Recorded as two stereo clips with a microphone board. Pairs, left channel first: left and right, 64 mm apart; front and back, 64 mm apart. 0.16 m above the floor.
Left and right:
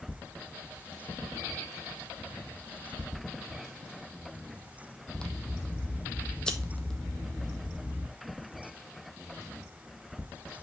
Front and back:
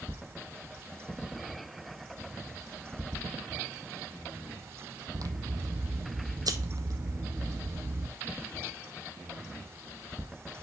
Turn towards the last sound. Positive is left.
turn(degrees=170)